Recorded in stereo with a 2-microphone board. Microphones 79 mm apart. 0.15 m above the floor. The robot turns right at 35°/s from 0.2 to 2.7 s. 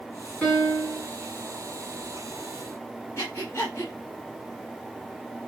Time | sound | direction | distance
0.4 | a piano | 20° left (ahead or behind) | 1.9 m
3.2 | breathing | 35° left (ahead or behind) | 1.1 m